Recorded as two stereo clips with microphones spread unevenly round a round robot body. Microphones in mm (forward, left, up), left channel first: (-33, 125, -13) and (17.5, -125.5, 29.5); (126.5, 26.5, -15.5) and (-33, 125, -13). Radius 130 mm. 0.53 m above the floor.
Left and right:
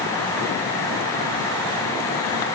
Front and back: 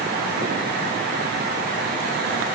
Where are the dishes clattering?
I don't hear dishes clattering.